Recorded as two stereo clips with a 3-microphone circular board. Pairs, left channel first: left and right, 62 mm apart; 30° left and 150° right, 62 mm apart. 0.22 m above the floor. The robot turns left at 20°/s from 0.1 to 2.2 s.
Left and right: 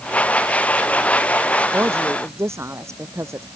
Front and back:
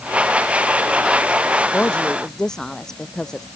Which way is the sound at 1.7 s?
40° right.